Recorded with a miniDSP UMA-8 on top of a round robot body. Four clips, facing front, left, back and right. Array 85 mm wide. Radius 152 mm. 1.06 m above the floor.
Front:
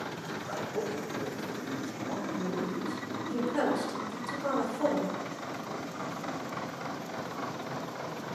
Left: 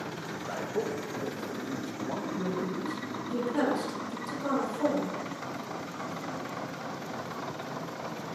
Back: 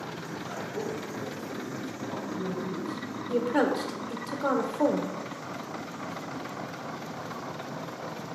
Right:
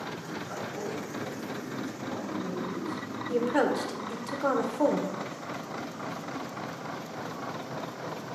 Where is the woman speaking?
130° right, 1.3 m.